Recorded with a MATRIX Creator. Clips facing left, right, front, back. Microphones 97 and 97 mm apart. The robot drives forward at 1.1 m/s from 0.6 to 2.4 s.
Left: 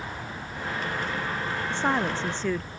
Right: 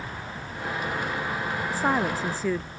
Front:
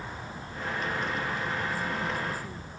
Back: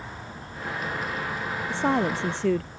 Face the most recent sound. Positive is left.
turn(degrees=-175)